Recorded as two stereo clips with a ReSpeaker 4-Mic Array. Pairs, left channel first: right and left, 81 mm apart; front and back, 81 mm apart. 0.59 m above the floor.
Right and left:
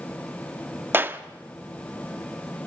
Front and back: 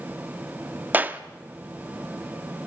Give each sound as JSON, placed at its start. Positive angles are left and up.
{"t": 0.9, "sound": "a clap", "azimuth_deg": 130, "distance_m": 0.7}